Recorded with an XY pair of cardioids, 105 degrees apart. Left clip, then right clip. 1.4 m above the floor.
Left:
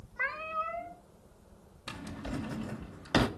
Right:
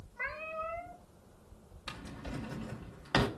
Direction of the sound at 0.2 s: 60° left.